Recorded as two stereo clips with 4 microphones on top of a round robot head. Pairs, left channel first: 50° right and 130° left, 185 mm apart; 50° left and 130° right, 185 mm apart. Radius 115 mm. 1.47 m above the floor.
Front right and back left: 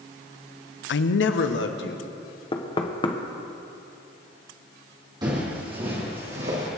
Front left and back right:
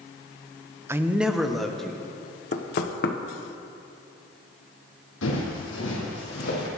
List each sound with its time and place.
0.9 s a man speaking: 55° right, 0.6 m; by 2.1 s 35° right, 2.0 m
2.5 s knocking: 10° left, 1.1 m
5.2 s footsteps: 60° left, 3.5 m; by 6.7 s 80° left, 4 m